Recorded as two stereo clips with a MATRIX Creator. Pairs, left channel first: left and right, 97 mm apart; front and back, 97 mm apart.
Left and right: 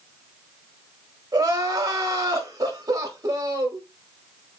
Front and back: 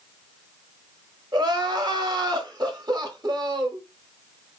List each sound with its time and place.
1.3 s crying: 140° right, 1.1 m